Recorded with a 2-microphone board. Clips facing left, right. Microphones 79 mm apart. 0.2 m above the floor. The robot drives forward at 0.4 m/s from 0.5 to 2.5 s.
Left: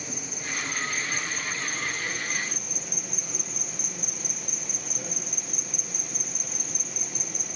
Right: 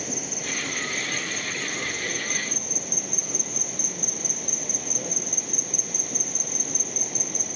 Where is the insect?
65° right (ahead or behind), 0.8 m; by 7.6 s 55° right (ahead or behind), 0.9 m.